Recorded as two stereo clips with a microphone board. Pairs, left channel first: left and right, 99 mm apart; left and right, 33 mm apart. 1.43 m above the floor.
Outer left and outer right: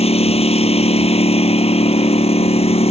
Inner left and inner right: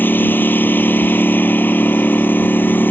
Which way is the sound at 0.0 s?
75° left (ahead or behind).